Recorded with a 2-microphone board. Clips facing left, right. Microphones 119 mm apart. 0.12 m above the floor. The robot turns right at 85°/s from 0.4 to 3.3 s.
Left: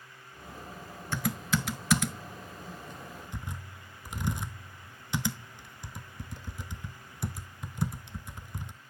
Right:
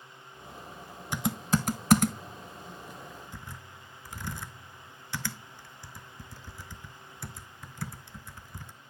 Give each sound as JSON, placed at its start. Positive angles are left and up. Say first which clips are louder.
{"t": 1.1, "sound": "typing on a keyboard", "louder": "right 2 dB", "side_deg": -15, "distance_m": 0.5}